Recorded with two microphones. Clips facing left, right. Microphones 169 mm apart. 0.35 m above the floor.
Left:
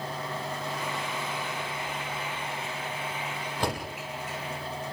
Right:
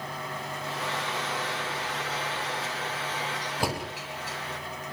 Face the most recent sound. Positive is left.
turn(degrees=-10)  # may be behind; listen again after turning